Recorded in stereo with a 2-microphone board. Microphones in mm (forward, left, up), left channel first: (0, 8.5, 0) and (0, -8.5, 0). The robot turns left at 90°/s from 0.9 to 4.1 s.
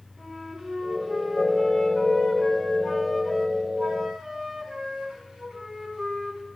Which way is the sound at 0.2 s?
140° right.